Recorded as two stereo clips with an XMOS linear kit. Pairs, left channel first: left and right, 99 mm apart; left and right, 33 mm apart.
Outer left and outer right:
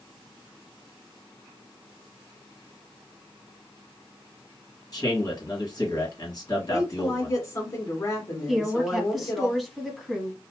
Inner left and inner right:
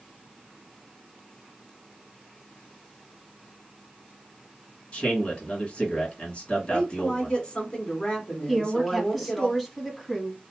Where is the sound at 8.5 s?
Centre (ahead or behind), 1.0 m.